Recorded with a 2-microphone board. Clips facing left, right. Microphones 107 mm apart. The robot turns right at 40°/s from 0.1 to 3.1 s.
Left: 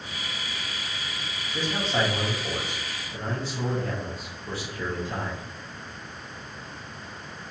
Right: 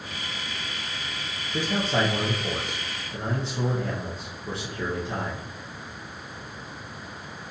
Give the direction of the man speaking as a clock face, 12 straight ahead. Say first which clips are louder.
Right 2 dB; 3 o'clock.